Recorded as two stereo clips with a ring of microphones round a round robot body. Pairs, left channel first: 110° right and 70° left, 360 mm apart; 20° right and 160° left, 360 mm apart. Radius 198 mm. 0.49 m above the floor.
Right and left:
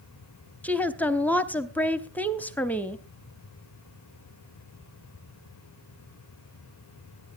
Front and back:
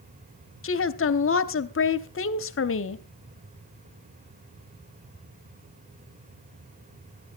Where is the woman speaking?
30° right, 1.0 m.